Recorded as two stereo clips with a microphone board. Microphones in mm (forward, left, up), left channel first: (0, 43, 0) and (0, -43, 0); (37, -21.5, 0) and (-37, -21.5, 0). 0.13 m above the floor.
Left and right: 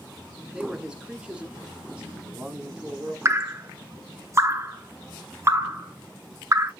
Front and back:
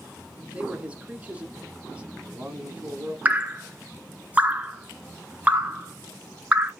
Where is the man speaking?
150° right, 1.0 m.